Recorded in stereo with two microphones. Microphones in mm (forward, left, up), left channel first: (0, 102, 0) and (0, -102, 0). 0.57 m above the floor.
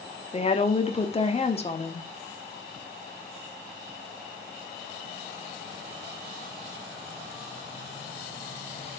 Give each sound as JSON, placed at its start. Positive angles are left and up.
{"t": 0.3, "sound": "a woman speaking", "side_deg": 30, "distance_m": 1.0}